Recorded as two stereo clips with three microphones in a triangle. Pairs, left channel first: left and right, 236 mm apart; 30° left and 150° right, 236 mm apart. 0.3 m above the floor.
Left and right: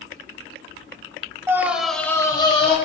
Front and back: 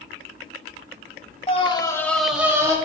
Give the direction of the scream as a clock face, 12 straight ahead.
1 o'clock.